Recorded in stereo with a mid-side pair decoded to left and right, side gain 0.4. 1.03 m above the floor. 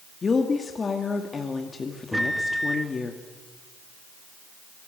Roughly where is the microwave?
Ahead.